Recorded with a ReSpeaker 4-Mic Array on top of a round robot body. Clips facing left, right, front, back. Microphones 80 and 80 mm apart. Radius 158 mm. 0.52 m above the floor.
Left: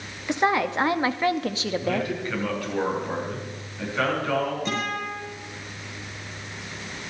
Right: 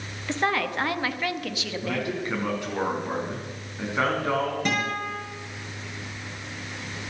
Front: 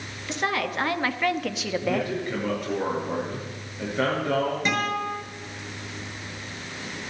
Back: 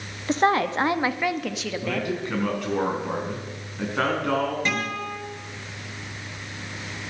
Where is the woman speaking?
160° left, 1.3 m; by 2.1 s 60° left, 1.3 m.